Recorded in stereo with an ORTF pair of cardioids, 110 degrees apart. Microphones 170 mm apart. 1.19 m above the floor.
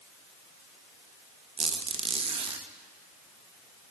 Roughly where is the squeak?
Ahead right.